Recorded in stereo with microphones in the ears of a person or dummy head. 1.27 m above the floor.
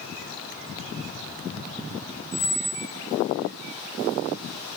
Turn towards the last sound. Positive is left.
turn(degrees=-50)  # may be behind; listen again after turning